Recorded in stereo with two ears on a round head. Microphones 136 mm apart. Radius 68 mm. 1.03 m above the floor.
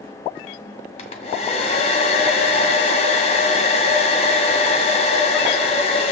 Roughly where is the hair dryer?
Left.